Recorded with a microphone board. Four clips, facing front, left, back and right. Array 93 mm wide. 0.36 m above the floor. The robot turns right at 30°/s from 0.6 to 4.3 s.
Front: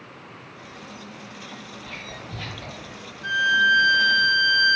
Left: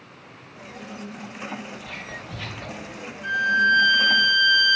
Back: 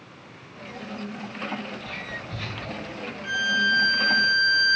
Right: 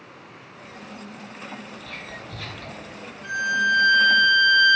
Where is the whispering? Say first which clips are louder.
Left 1 dB, back 2 dB; 55° left, 1.0 m; by 2.9 s 85° left, 1.0 m.